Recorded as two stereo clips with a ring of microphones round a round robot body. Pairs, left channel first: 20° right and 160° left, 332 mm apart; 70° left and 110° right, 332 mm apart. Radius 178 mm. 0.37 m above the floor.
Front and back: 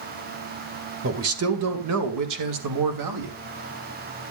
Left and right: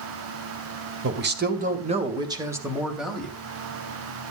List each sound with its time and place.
1.0 s a man speaking: 160° right, 2 m; by 3.3 s 155° left, 3 m